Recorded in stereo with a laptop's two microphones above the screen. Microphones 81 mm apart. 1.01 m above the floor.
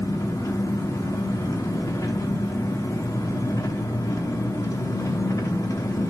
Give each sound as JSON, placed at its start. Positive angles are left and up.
{"t": 0.0, "sound": "an engine running", "side_deg": 45, "distance_m": 1.0}